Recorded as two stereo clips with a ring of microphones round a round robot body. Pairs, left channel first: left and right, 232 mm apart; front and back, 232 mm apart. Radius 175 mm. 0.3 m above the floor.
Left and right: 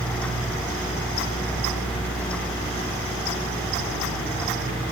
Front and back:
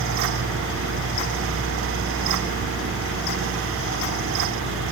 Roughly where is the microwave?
I don't hear a microwave.